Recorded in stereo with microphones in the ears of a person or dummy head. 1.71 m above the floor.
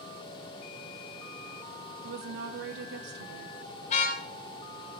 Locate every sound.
2.0 s a woman speaking: 55° right (ahead or behind), 0.9 m
3.9 s a car horn: 40° left (ahead or behind), 5 m